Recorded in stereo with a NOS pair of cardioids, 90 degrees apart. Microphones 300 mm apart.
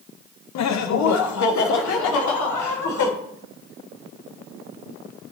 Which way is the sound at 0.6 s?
60° left.